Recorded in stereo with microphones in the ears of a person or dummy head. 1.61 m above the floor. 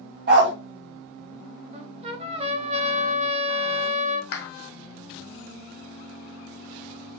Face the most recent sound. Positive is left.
turn(degrees=75)  # may be behind; listen again after turning